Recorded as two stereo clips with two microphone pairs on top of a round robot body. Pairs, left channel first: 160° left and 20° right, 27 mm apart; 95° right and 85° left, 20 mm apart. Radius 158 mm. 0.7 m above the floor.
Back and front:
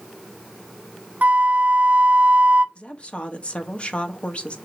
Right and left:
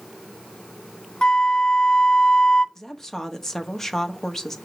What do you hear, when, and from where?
1.2 s a flute: 50° right, 0.7 m
2.8 s a woman speaking: 155° right, 1.5 m